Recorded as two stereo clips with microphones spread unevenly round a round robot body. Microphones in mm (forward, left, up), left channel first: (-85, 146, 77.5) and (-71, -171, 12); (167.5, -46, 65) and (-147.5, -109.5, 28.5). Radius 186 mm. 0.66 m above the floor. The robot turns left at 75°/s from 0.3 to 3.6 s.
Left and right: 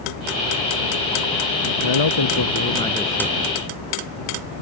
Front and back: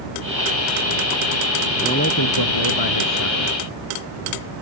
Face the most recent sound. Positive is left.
turn(degrees=-45)